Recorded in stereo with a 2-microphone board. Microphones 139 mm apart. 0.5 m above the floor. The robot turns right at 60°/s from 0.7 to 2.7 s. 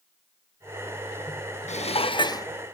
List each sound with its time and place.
1.7 s dishes clattering: 105° left, 0.6 m; by 2.5 s 155° left, 0.6 m